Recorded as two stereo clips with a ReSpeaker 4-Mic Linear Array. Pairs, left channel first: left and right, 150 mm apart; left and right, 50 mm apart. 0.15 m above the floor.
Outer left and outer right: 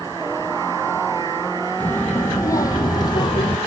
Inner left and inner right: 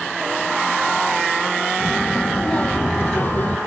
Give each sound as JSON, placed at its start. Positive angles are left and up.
{"t": 1.8, "sound": "a child speaking", "side_deg": 10, "distance_m": 3.0}